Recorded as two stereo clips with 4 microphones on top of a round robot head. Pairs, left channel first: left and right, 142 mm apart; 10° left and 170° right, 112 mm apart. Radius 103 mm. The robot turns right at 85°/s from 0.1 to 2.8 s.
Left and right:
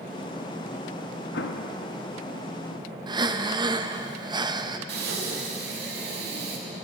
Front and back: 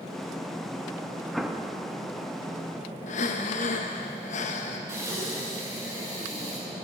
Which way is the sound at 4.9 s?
100° right.